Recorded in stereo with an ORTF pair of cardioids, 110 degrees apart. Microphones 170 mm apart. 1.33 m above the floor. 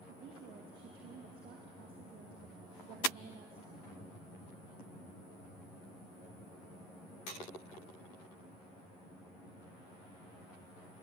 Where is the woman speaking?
65° right, 2.5 m.